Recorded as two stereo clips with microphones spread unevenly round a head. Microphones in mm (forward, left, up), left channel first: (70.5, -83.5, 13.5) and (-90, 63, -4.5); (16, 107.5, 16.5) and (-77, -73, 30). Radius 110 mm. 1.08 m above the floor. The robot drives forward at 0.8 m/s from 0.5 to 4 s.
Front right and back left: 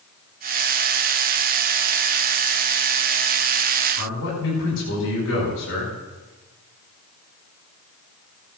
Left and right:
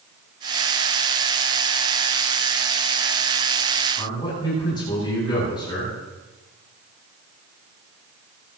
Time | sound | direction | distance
4.0 | a man speaking | 10° right | 10 m